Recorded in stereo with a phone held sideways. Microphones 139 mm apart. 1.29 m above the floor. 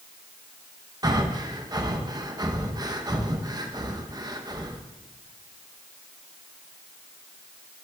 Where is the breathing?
30° right (ahead or behind), 0.7 m.